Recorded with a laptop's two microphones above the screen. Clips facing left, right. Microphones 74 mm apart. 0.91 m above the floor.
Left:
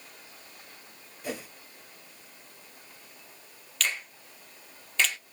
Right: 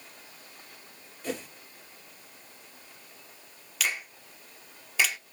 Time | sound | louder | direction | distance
1.2 | a whoosh | right 2 dB | 10° left (ahead or behind) | 2.5 m
3.8 | a finger snap | even | 10° right (ahead or behind) | 0.5 m